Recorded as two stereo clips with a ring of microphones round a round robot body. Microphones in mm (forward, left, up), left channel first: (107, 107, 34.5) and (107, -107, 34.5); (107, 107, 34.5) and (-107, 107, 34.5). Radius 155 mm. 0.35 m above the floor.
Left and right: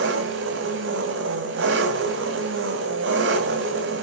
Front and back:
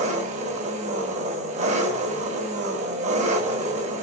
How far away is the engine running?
About 1.8 m.